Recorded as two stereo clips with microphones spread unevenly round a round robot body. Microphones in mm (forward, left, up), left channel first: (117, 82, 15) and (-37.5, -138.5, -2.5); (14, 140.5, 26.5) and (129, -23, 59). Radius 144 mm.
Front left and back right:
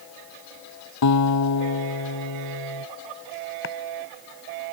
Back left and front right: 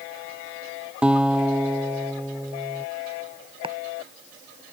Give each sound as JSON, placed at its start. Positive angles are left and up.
{"t": 1.0, "sound": "a guitar", "azimuth_deg": 30}
{"t": 3.6, "sound": "chopping", "azimuth_deg": 10}